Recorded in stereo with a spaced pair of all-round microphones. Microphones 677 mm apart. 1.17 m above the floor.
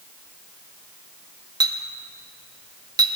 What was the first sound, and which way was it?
A clink, 5° right (ahead or behind).